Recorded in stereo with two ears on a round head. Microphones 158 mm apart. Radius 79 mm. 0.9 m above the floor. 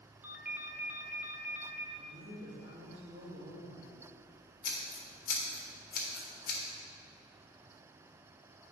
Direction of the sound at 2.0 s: 45° right (ahead or behind).